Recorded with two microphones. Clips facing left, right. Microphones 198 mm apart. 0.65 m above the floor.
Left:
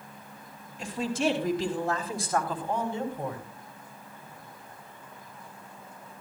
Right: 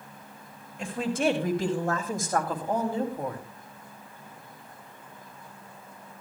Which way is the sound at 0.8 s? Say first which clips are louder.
Right 1 dB; 55° right (ahead or behind).